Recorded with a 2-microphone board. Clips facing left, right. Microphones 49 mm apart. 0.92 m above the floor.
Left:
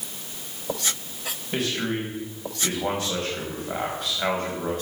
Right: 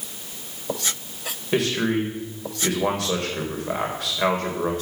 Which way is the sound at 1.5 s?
75° right (ahead or behind).